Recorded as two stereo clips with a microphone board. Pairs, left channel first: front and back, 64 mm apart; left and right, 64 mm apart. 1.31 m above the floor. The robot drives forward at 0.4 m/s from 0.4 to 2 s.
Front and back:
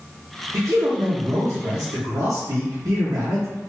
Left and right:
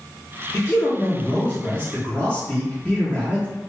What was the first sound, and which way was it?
A man speaking, 140° left.